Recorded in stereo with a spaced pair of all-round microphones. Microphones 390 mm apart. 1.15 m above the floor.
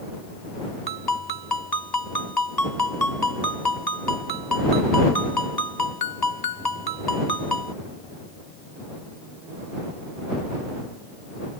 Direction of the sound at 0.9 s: 70° left (ahead or behind).